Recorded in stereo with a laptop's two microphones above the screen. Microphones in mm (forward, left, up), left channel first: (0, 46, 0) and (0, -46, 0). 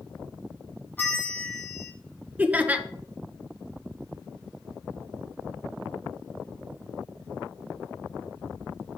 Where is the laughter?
15° right (ahead or behind), 0.6 m.